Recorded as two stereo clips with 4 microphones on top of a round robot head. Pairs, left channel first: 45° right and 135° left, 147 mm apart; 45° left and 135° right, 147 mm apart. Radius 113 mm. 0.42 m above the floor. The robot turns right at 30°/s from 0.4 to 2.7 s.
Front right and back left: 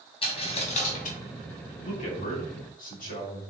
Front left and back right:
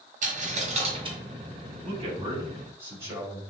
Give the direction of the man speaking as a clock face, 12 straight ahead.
3 o'clock.